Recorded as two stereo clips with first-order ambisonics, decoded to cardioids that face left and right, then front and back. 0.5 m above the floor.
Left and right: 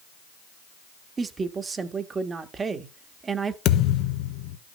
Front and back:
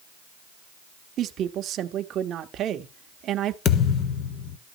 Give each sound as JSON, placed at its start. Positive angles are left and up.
{"t": 1.2, "sound": "a woman speaking", "azimuth_deg": -150, "distance_m": 0.9}
{"t": 3.6, "sound": "a thud", "azimuth_deg": 50, "distance_m": 1.1}